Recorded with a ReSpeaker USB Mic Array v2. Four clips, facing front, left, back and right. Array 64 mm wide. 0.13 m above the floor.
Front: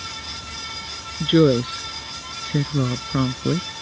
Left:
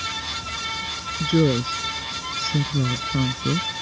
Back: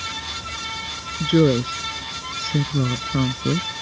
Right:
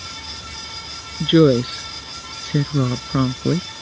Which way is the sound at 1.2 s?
70° right.